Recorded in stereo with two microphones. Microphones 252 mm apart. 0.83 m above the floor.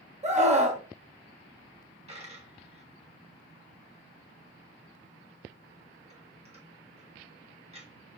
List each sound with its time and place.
0.2 s a scream: 25° right (ahead or behind), 0.9 m
2.1 s a dropped coin: 25° right (ahead or behind), 1.1 m